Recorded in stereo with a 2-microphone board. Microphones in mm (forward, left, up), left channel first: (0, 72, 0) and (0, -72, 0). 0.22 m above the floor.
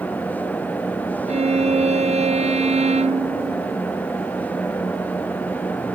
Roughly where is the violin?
Right.